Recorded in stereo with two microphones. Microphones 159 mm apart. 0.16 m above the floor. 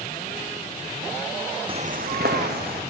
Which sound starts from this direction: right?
Footsteps, at 1.7 s.